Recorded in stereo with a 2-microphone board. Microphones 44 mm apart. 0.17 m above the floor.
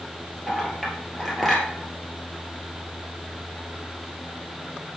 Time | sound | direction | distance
0.5 | a clink | 5° left (ahead or behind) | 1.9 m